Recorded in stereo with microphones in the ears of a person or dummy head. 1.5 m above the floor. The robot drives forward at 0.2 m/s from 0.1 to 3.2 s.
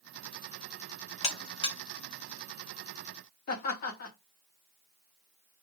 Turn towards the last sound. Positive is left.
turn(degrees=55)  # may be behind; listen again after turning